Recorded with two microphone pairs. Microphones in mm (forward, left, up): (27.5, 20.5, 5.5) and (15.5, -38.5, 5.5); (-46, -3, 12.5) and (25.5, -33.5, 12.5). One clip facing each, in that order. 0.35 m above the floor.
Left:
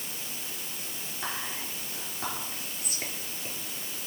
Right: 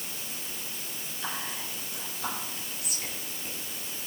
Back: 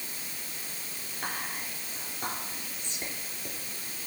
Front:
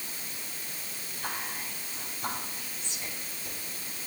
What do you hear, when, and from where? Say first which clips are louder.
1.2 s whispering: even, even; 130° left, 5.5 m